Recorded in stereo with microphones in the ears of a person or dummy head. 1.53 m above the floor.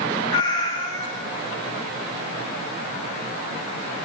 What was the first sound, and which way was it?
A cat meowing, 30° left (ahead or behind).